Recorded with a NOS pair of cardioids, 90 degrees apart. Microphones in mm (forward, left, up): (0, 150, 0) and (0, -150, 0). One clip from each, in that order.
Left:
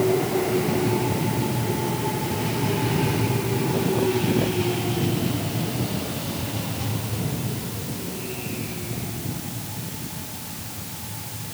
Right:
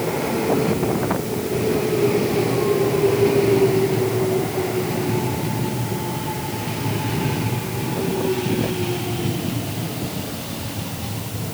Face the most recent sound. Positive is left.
No sound to turn to.